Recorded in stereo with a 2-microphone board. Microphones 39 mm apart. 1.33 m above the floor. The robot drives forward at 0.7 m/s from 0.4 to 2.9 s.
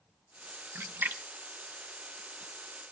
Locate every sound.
0.8 s a splash: 70° right (ahead or behind), 0.8 m; by 1.2 s 60° right (ahead or behind), 0.9 m